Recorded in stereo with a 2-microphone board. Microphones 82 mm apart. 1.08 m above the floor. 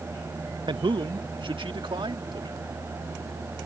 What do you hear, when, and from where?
0.7 s a man speaking: 65° right (ahead or behind); by 2.8 s 75° right (ahead or behind)